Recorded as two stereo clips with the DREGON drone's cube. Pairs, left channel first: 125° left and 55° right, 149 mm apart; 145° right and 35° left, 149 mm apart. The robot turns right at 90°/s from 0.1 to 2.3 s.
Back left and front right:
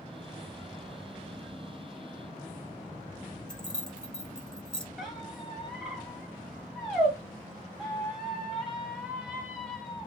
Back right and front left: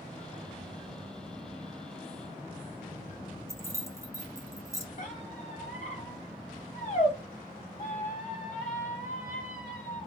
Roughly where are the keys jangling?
Ahead left.